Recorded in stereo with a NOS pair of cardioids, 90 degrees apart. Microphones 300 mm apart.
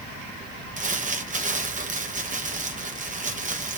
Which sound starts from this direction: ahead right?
Crumpling, at 0.8 s.